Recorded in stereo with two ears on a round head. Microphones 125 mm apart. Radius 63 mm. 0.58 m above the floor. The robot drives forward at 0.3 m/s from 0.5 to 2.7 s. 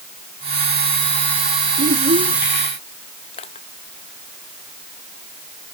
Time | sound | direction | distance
1.8 | a child speaking | 85° right | ?
3.3 | crushing | 45° left (ahead or behind) | ?